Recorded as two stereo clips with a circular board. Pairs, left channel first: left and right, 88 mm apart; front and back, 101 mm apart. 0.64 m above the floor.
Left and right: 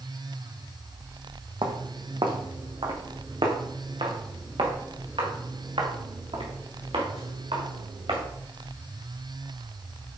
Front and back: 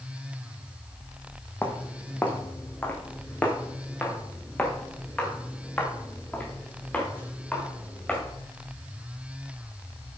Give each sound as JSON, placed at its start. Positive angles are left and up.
{"t": 1.6, "sound": "footsteps", "azimuth_deg": -70, "distance_m": 2.0}